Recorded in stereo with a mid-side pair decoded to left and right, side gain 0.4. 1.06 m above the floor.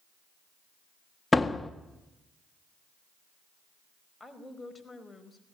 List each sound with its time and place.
1.3 s a door slam: 20° left, 1.6 m
4.2 s a woman speaking: 15° left, 4.5 m